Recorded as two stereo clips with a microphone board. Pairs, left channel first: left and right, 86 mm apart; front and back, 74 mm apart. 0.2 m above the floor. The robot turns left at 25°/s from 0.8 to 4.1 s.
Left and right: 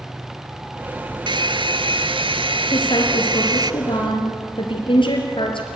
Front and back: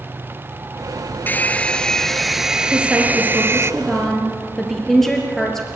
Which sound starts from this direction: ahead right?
A hair dryer, at 1.3 s.